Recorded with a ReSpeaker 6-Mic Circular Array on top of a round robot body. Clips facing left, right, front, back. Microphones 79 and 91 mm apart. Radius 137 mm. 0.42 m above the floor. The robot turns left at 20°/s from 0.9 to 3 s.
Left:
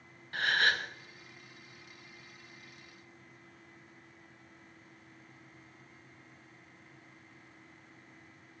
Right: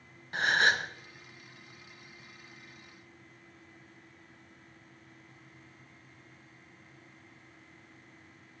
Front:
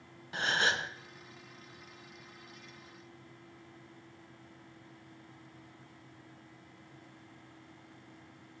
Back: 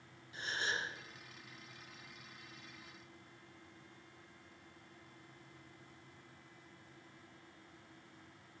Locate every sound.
0.3 s a gasp: 20° right, 1.1 m